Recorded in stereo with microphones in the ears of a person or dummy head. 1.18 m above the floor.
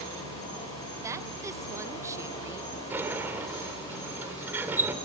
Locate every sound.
0.0 s an insect: 25° left (ahead or behind), 9.5 m
1.0 s a woman speaking: 15° right (ahead or behind), 1.0 m
2.9 s a sliding door: 10° right (ahead or behind), 2.5 m